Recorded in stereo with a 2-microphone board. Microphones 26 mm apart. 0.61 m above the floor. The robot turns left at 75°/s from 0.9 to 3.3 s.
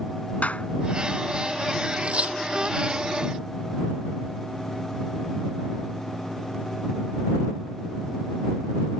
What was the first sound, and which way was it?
A clap, 75° left (ahead or behind).